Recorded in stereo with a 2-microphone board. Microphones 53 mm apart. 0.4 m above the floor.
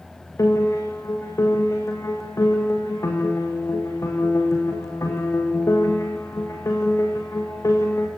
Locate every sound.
0.4 s a piano: 70° left (ahead or behind), 6 m